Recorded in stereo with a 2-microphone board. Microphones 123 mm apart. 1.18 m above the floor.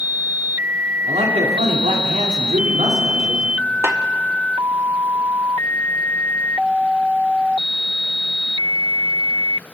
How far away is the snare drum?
About 0.9 m.